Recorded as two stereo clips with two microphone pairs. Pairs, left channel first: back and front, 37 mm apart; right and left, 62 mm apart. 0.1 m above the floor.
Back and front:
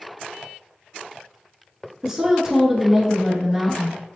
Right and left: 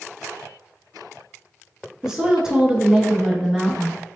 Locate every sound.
2.0 s a woman speaking: 40° left, 1.1 m